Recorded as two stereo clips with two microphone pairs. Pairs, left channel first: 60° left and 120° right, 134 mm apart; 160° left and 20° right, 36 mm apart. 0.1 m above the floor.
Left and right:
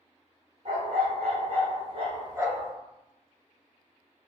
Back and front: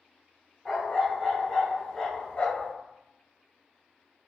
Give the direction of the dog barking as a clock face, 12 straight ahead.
3 o'clock.